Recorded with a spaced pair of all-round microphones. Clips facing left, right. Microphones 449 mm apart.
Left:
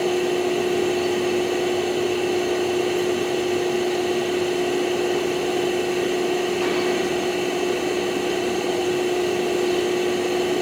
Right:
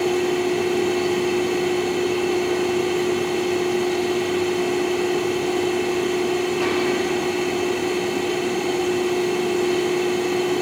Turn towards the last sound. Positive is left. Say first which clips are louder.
# right 1 dB
turn(degrees=-20)  # may be behind; listen again after turning